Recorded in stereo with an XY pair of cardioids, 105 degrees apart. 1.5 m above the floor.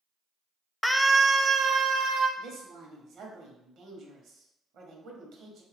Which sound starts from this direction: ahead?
A scream, at 0.8 s.